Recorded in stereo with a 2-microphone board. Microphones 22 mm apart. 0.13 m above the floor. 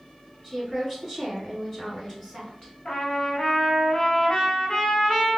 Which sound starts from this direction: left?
A trumpet, at 2.9 s.